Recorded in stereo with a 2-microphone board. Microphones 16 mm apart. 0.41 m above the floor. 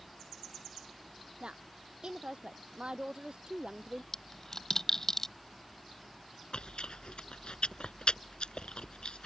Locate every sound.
1.4 s a woman speaking: 60° right (ahead or behind)
4.1 s a dropped coin: 25° left (ahead or behind)
6.5 s chewing: 75° left (ahead or behind)